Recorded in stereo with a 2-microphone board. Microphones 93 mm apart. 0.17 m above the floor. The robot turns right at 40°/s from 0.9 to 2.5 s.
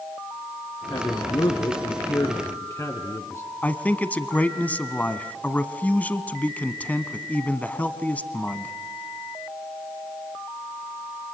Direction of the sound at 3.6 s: 15° left (ahead or behind).